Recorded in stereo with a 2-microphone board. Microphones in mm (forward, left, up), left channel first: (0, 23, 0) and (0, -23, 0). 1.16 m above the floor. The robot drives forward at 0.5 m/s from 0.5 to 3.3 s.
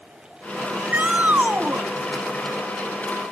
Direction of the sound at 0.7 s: 30° right (ahead or behind).